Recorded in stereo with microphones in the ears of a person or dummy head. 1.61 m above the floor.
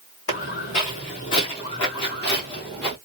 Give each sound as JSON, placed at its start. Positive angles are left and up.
{"t": 0.3, "sound": "footsteps", "side_deg": 45, "distance_m": 3.0}